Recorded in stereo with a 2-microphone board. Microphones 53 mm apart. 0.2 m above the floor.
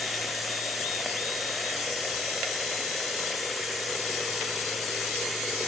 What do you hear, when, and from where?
0.0 s running water: centre (ahead or behind), 5.5 m